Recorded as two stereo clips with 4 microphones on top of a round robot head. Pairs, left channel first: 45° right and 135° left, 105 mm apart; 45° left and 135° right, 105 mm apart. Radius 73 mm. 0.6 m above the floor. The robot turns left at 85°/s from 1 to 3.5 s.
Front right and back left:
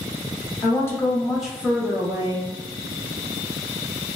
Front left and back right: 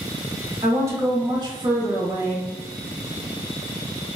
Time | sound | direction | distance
0.6 | a woman speaking | 95° right | 1.1 m